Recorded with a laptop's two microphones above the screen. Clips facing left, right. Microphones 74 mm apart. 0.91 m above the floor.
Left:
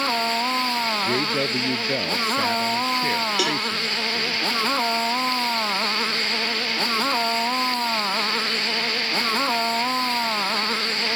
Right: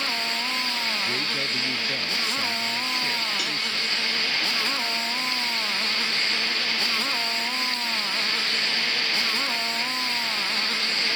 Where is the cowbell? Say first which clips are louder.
Left 7 dB; 80° left.